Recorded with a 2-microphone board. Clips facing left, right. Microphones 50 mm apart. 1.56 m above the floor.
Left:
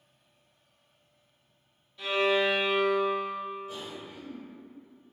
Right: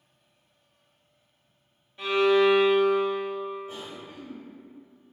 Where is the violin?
30° right (ahead or behind), 0.7 m.